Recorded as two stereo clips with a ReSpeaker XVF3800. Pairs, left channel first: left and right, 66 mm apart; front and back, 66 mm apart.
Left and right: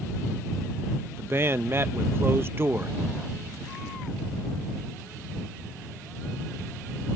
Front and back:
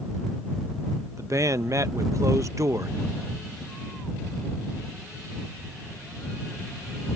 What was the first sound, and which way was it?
A man speaking, 140° right.